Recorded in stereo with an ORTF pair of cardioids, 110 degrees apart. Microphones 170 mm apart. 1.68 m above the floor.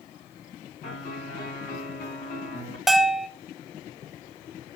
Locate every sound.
0.8 s a piano: 70° left, 3.5 m
2.9 s a bell: straight ahead, 0.7 m